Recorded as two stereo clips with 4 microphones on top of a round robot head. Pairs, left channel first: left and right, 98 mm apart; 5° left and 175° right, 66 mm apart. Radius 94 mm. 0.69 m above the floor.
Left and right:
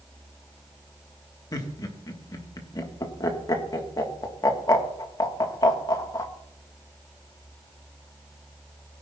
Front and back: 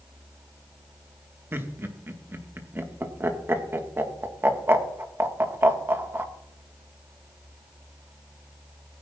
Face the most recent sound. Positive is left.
turn(degrees=135)